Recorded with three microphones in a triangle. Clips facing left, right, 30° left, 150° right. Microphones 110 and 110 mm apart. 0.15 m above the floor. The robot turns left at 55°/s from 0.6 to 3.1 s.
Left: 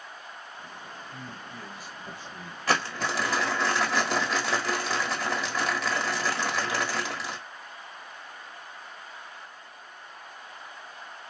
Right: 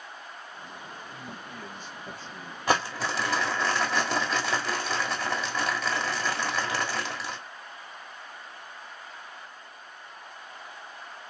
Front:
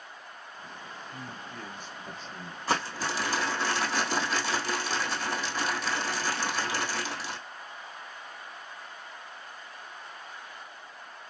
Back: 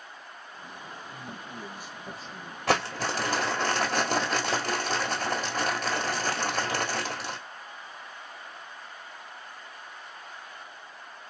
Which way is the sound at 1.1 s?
165° right.